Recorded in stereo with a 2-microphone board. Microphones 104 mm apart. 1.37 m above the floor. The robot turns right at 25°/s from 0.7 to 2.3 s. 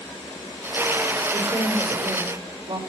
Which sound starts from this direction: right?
A woman speaking, at 1.3 s.